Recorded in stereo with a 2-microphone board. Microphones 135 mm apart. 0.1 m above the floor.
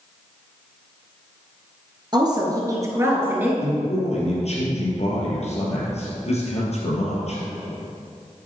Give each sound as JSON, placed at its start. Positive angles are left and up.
{"t": 2.1, "sound": "a woman speaking", "side_deg": -35, "distance_m": 2.0}
{"t": 3.6, "sound": "a man speaking", "side_deg": 55, "distance_m": 3.0}